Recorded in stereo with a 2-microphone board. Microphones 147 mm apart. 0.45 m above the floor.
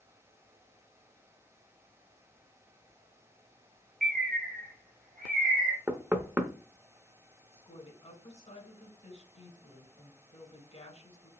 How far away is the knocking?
About 0.6 m.